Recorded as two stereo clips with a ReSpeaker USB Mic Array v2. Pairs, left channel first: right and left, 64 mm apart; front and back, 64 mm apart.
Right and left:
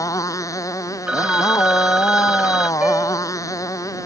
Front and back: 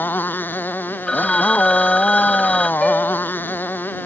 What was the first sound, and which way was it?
A motorcycle, 60° right.